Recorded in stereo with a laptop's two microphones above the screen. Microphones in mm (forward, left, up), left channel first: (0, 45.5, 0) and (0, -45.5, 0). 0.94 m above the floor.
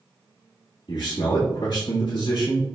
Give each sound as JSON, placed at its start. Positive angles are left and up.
{"t": 0.9, "sound": "a man speaking", "side_deg": 60, "distance_m": 1.5}